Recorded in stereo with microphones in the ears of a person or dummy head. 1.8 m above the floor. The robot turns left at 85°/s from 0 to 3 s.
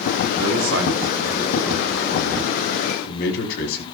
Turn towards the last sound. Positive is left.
turn(degrees=60)